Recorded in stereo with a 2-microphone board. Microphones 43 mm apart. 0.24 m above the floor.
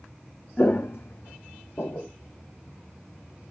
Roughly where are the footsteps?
Left.